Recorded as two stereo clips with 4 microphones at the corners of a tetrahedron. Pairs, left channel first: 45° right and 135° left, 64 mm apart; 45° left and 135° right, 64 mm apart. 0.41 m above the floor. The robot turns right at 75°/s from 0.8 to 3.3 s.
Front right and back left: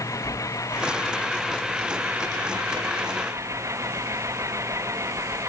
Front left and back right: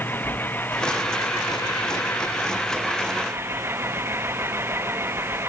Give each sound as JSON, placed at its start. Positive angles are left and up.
{"t": 0.0, "sound": "an engine running", "azimuth_deg": -15}